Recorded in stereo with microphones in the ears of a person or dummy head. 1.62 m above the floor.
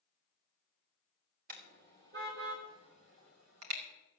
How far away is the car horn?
About 3.5 m.